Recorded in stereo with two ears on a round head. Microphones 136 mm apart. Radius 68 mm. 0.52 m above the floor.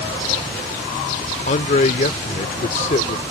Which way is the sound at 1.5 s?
45° left (ahead or behind).